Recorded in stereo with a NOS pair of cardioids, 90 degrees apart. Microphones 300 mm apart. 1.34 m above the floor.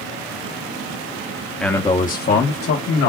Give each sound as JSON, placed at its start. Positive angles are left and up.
{"t": 1.6, "sound": "a man speaking", "azimuth_deg": 0, "distance_m": 1.2}